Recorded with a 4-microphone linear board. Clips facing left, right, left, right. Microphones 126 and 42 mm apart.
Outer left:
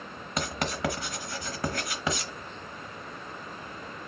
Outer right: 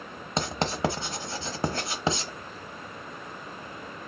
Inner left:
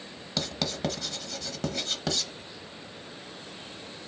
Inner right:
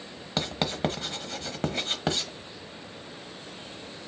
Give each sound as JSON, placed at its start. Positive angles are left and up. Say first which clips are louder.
{"t": 0.4, "sound": "writing", "louder": "outer right 3 dB, inner right 3 dB", "side_deg": -30, "distance_m": 0.8}